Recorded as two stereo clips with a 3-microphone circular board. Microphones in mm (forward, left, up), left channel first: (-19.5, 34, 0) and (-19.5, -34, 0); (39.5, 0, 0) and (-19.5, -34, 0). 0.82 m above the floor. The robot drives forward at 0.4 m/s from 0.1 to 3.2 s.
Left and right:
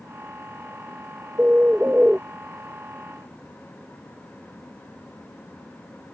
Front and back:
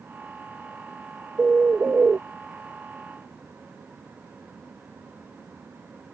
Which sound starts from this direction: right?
A bird, at 1.4 s.